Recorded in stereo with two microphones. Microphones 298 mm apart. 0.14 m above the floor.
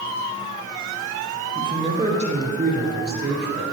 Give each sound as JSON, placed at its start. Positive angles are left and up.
{"t": 1.6, "sound": "a man speaking", "side_deg": -15, "distance_m": 2.5}